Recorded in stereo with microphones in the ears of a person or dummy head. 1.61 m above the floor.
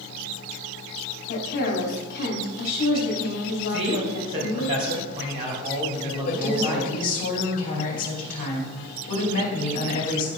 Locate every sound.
1.3 s a woman speaking: 50° left (ahead or behind), 2.5 m
3.7 s a man speaking: 30° right (ahead or behind), 3 m
6.2 s a woman speaking: 40° left (ahead or behind), 2.5 m